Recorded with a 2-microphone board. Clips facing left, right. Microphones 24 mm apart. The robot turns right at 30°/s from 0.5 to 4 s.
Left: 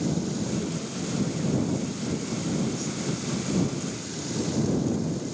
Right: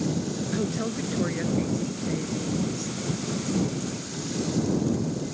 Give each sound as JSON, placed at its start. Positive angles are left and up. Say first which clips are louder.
{"t": 0.5, "sound": "a woman speaking", "louder": "right 3 dB", "azimuth_deg": -70}